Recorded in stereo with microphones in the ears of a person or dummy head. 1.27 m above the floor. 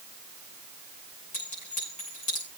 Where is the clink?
30° left (ahead or behind), 9.5 m.